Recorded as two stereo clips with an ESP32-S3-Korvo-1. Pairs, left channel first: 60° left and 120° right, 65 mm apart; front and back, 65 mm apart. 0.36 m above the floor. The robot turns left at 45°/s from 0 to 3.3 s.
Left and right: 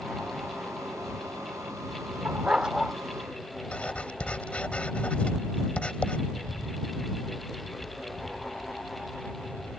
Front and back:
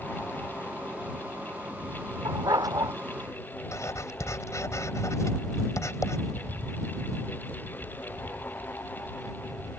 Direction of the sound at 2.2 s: Straight behind.